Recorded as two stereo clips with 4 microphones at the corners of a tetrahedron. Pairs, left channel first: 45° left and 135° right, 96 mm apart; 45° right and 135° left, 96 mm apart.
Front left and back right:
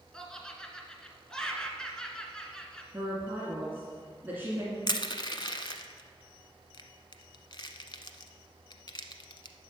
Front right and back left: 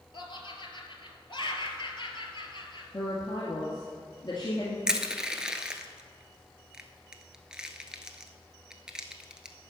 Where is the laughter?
35° right, 1.8 m.